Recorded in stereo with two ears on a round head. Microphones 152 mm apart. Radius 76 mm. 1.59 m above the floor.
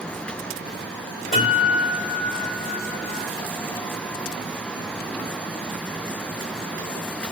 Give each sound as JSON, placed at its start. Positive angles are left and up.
{"t": 1.3, "sound": "a guitar", "side_deg": 50, "distance_m": 1.7}